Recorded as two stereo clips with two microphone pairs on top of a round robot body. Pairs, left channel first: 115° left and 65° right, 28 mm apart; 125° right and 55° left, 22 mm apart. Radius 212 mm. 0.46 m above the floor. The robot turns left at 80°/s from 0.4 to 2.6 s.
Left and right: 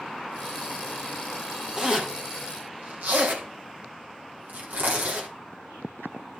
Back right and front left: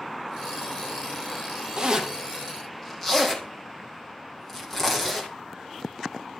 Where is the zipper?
5° left, 3.5 m; by 5.3 s 65° right, 3.5 m.